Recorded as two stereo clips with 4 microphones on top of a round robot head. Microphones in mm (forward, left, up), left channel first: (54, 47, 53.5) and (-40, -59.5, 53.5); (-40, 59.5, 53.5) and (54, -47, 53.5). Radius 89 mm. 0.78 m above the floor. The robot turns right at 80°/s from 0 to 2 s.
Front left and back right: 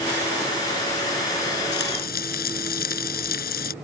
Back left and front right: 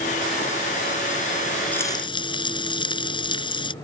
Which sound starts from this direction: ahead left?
Frying, at 1.7 s.